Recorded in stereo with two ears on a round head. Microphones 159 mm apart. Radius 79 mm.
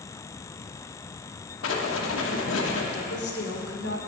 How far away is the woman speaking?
About 1.3 m.